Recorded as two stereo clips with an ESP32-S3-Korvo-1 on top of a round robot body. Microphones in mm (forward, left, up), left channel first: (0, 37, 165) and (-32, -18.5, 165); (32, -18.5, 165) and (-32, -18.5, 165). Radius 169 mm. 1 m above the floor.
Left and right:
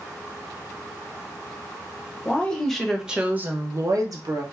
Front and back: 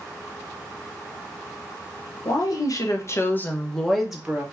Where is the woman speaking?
10° right, 1.0 m; by 4.4 s 105° right, 1.0 m.